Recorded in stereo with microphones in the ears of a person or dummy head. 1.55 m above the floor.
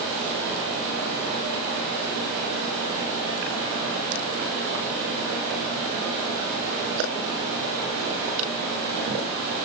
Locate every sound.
Only background noise.